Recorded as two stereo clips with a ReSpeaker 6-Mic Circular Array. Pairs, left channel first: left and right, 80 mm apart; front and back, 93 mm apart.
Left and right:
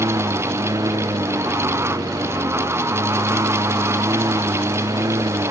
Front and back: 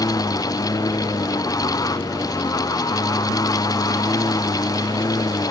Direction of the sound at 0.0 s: 50° right.